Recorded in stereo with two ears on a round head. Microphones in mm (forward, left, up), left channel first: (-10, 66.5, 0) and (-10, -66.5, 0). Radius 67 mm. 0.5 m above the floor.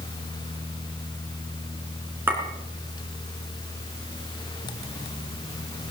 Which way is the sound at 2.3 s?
15° right (ahead or behind).